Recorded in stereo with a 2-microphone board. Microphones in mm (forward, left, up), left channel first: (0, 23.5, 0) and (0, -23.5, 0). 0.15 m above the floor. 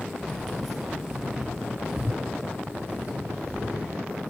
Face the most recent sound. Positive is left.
turn(degrees=-35)  # may be behind; listen again after turning